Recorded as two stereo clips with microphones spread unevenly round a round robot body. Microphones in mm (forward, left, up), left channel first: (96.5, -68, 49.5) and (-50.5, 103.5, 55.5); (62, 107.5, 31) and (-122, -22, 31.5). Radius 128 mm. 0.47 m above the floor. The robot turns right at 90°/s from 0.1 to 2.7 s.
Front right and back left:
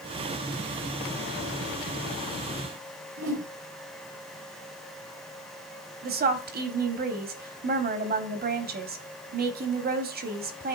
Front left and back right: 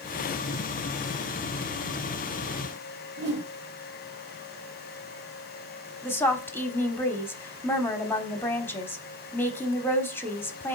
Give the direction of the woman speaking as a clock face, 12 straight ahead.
8 o'clock.